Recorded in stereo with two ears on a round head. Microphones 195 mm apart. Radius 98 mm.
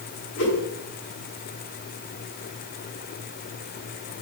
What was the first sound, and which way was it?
A whoosh, 60° left (ahead or behind).